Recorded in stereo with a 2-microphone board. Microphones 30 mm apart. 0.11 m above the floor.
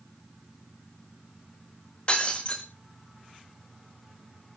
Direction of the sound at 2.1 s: 40° left (ahead or behind).